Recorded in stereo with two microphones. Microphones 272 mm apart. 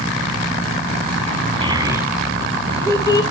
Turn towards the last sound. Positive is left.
turn(degrees=15)  # may be behind; listen again after turning